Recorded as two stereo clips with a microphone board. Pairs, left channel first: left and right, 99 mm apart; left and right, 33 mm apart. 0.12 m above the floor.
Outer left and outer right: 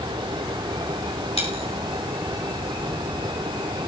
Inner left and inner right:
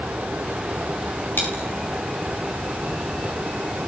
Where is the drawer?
I don't hear a drawer.